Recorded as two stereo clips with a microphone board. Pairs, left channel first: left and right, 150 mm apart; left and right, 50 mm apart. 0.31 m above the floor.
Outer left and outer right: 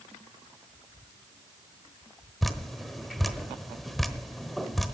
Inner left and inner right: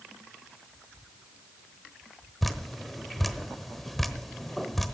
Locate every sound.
2.4 s dripping: centre (ahead or behind), 1.0 m